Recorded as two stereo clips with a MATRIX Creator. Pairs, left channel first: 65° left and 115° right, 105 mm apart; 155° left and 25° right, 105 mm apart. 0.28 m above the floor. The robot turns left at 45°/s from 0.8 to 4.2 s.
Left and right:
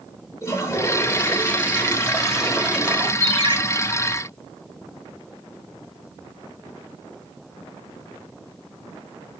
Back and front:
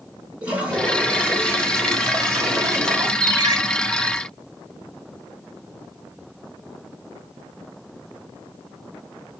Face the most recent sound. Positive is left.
turn(degrees=-100)